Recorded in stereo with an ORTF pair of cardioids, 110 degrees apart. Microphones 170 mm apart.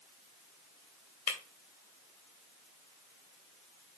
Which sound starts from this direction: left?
Breaking glass, at 1.3 s.